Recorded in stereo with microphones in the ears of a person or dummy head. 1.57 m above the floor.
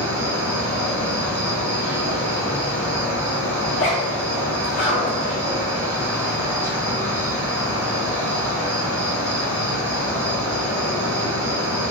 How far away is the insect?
About 1.9 m.